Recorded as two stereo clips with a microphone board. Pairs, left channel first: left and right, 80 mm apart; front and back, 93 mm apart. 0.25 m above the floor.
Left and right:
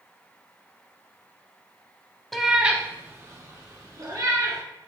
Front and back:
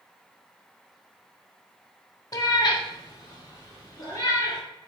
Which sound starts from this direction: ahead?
A cat meowing, at 2.3 s.